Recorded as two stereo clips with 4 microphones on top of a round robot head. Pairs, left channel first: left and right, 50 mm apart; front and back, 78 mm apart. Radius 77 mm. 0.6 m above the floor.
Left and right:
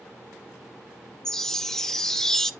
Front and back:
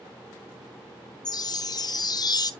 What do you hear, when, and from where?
1.2 s a chime: 10° left, 0.9 m